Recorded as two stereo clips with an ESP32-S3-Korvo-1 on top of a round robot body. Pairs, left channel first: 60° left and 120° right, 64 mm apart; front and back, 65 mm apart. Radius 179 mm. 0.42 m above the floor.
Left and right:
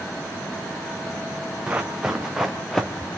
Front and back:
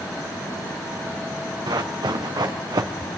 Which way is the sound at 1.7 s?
165° left.